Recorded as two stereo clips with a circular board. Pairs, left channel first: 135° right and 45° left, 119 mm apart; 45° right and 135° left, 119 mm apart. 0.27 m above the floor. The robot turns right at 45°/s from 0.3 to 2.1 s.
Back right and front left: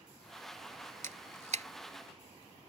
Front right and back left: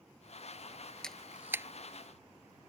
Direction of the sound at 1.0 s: 40° left.